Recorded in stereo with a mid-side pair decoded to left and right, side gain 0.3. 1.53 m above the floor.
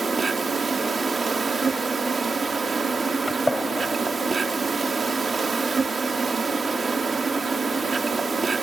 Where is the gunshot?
25° left.